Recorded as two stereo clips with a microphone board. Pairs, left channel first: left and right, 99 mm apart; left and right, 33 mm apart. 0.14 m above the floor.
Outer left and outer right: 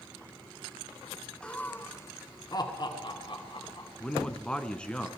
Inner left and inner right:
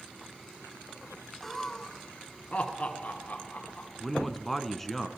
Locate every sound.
1.4 s laughter: 10° left (ahead or behind), 1.2 m; by 3.9 s 60° left (ahead or behind), 2.5 m
4.0 s a man speaking: 10° left (ahead or behind), 1.2 m